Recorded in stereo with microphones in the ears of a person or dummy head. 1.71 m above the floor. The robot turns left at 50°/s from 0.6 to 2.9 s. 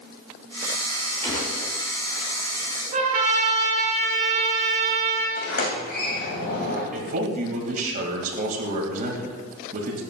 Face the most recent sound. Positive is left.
turn(degrees=-50)  # may be behind; listen again after turning